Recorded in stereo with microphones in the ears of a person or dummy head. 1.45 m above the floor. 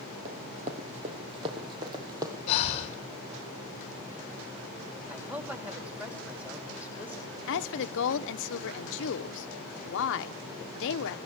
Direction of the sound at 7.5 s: 70° left (ahead or behind).